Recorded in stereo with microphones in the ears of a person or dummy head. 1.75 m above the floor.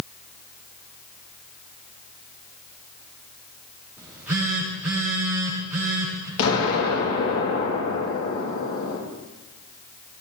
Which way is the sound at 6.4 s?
80° left.